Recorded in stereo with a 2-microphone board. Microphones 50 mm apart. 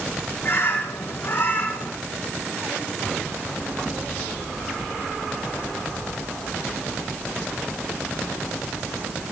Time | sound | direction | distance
0.4 | a bird | 45° left (ahead or behind) | 2 m